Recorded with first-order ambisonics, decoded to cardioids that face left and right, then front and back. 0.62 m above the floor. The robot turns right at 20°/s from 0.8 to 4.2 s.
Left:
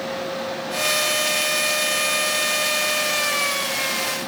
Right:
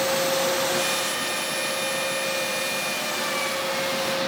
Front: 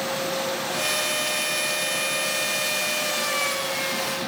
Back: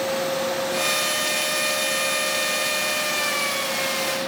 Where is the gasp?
No gasp in this recording.